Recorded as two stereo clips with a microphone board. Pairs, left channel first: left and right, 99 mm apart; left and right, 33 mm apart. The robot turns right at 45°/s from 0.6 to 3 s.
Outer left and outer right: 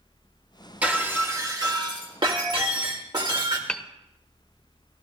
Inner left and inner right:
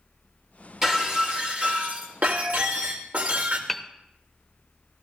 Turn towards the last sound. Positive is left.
turn(degrees=10)  # may be behind; listen again after turning